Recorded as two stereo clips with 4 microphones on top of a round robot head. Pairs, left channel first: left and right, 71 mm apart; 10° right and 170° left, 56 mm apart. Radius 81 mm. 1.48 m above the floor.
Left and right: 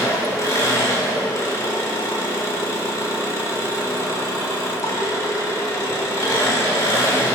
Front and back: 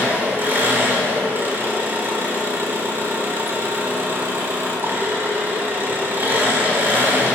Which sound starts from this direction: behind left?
An engine running, at 0.0 s.